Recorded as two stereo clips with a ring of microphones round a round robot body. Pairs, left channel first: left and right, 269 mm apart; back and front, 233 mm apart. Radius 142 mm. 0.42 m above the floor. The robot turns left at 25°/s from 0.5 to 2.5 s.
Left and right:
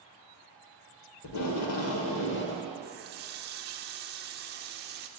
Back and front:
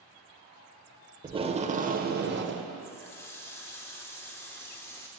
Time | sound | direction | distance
1.2 | tape being pulled | 70° left | 0.8 m
2.8 | a running tap | 110° right | 0.6 m